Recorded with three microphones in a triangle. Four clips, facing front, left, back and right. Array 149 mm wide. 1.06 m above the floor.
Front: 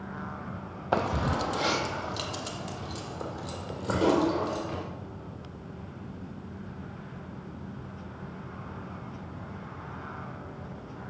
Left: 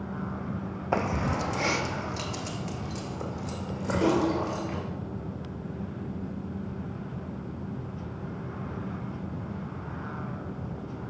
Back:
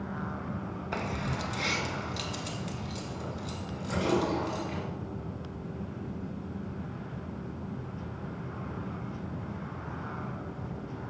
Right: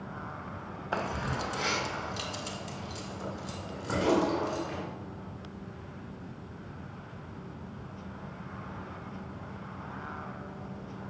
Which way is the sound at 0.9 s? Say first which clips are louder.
Left 5 dB, front 8 dB; 40° left.